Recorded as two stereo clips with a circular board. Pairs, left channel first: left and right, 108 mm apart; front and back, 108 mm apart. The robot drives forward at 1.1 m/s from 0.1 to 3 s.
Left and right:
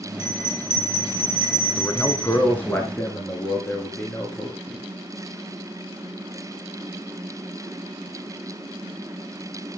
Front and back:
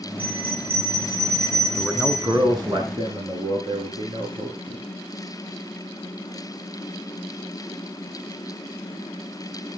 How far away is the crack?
No crack in this recording.